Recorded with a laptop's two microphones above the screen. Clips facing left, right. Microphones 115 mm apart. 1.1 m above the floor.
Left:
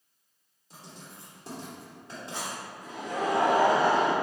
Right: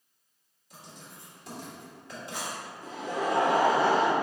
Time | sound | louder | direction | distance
0.7 | writing | left 1 dB | 30° left (ahead or behind) | 1.2 m
2.8 | laughter | even | 30° right (ahead or behind) | 0.9 m